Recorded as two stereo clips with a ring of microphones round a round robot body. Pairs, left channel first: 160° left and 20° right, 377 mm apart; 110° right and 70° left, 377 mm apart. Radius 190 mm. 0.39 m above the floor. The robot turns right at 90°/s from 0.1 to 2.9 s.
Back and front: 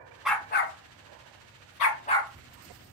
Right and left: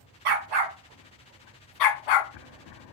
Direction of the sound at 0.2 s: 65° left.